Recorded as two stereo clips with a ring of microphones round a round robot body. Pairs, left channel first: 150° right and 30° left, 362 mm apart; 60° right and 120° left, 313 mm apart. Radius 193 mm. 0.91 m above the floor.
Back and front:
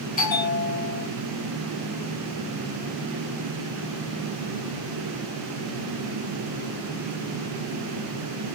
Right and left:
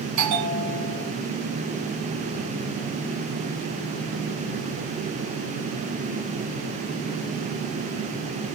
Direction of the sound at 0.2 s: 145° left.